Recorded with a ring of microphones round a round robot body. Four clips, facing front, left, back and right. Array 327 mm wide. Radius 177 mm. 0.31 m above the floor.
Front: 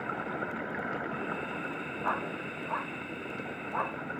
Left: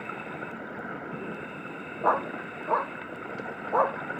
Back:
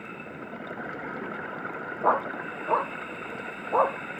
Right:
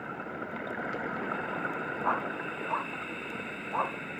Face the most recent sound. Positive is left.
turn(degrees=145)